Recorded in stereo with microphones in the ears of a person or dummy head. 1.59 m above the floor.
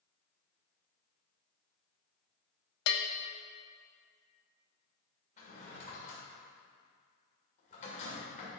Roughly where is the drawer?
Left.